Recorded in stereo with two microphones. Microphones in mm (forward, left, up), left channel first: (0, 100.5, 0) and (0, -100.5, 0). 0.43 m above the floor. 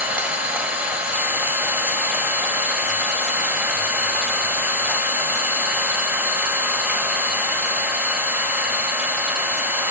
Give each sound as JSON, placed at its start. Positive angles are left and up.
{"t": 0.0, "sound": "an engine running", "side_deg": -5, "distance_m": 2.0}